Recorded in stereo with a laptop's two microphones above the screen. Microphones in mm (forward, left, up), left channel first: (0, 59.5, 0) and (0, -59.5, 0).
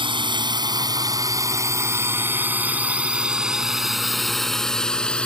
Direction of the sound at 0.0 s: 45° right (ahead or behind).